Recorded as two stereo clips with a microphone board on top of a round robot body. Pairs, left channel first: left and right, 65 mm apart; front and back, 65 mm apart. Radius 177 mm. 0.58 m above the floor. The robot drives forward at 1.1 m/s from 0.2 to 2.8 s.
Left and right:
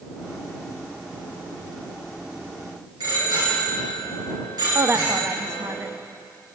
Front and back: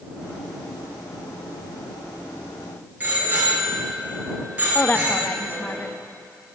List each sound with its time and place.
3.0 s a bicycle bell: 115° right, 8 m
4.8 s a woman speaking: 55° right, 1.1 m